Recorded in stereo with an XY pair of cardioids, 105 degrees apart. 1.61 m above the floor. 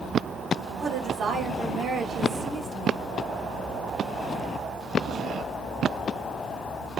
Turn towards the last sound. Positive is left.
turn(degrees=-55)